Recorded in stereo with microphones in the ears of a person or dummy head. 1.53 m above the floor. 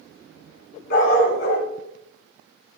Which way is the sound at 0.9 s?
60° left (ahead or behind).